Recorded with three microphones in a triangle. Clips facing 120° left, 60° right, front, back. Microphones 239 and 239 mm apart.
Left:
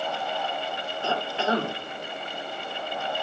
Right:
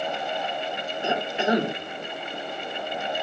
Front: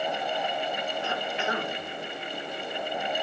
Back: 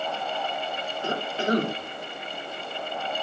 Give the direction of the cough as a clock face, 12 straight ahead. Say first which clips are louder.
Right 3 dB, back 4 dB; 4 o'clock.